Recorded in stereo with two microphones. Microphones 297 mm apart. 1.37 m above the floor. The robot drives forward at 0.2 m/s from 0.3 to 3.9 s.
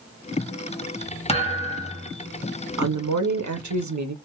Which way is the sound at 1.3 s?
20° left (ahead or behind).